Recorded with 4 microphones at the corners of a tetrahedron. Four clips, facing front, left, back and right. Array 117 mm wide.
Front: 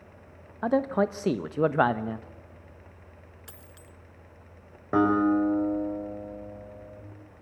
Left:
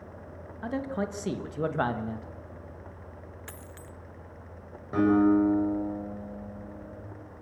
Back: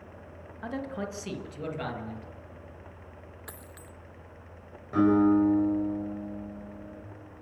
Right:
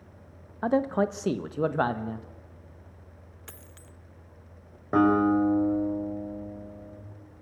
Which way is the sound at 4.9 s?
40° right.